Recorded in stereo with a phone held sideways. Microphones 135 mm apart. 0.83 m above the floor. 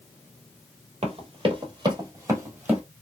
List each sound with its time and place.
1.0 s running footsteps: 50° right (ahead or behind), 1.2 m; by 2.8 s 10° right (ahead or behind), 1.5 m